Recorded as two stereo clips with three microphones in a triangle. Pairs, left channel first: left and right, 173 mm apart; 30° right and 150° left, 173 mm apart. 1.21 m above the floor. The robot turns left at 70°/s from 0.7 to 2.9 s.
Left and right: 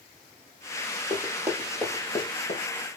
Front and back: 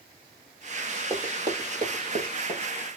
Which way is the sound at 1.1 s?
125° right.